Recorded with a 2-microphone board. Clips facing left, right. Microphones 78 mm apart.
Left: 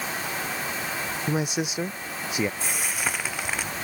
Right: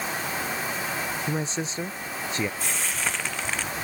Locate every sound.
1.3 s a man speaking: 15° left (ahead or behind)
2.6 s frying: 10° left (ahead or behind)